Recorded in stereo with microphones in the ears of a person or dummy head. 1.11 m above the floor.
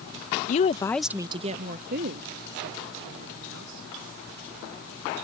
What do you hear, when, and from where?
0.5 s a woman speaking: 45° left (ahead or behind); by 3.9 s 70° right (ahead or behind)